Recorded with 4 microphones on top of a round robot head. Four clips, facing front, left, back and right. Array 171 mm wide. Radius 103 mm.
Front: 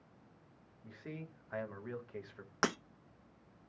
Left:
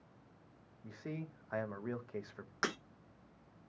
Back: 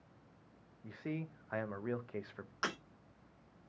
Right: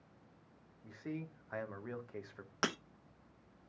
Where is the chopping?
I don't hear chopping.